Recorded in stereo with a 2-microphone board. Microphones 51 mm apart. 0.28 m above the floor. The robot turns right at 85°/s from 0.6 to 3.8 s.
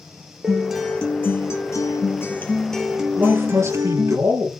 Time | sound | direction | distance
0.4 | a guitar | 15° right | 2.5 m
3.2 | a man speaking | 140° right | 6.5 m